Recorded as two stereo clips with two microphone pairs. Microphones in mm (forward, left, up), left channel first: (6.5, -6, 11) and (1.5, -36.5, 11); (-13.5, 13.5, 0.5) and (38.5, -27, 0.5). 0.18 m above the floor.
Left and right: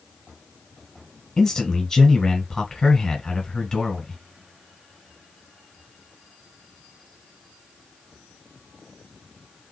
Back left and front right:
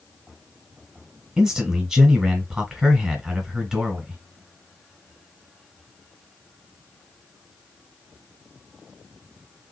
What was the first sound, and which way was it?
A man speaking, 35° left.